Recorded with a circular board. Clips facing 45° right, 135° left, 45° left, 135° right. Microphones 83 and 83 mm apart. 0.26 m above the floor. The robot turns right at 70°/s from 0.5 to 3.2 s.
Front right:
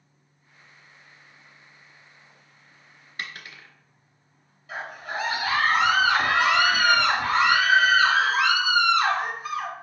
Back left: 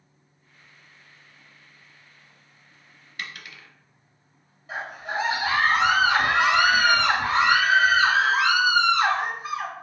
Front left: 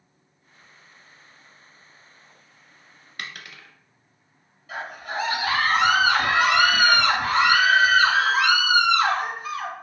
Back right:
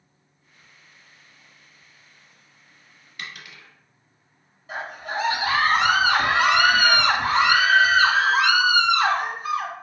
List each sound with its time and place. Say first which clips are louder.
3.2 s a dropped coin: front right 1 dB, front left 1 dB; 10° left, 0.8 m
4.7 s a scream: back left 2 dB, back right 1 dB; straight behind, 1.7 m